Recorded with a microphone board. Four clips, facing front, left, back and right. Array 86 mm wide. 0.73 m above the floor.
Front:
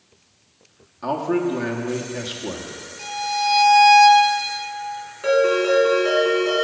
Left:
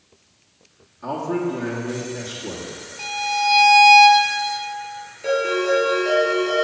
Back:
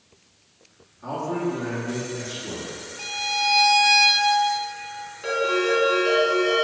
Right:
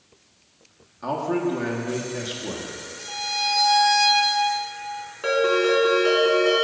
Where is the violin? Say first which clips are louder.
Left 8 dB, front 4 dB; 115° left, 1.4 m.